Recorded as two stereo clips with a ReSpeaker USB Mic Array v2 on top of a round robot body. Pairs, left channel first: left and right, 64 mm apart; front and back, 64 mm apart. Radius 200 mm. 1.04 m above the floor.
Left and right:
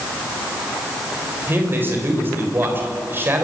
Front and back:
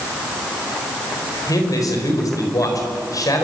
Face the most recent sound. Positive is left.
turn(degrees=-35)